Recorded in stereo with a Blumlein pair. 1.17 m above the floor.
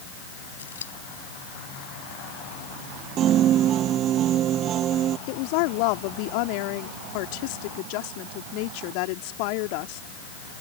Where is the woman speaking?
45° left.